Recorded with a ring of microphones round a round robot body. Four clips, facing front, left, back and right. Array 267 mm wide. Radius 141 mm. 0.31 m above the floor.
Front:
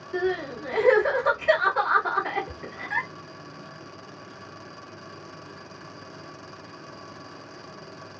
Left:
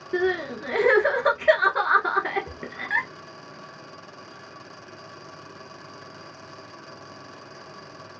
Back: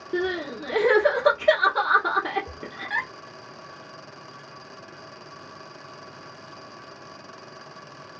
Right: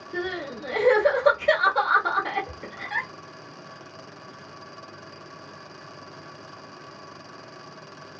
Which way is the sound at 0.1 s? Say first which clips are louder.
Left 6 dB, even; 135° left.